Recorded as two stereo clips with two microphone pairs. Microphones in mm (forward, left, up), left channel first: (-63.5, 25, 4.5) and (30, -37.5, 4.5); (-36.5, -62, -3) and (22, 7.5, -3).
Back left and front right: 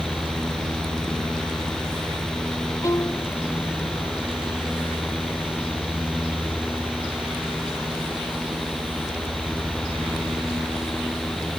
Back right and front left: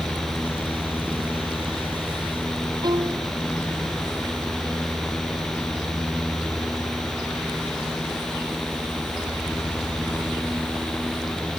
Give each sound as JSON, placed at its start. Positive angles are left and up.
{"t": 2.8, "sound": "a violin", "azimuth_deg": 85}